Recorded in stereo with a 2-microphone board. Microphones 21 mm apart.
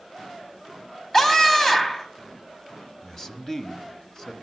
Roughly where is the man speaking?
Centre.